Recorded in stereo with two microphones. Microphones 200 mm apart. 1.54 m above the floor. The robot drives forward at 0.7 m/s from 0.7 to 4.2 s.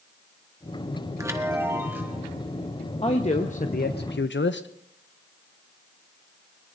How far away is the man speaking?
About 1.2 m.